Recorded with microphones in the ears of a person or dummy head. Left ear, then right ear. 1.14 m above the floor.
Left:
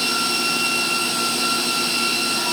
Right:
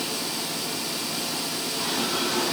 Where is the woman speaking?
No woman speaking in this recording.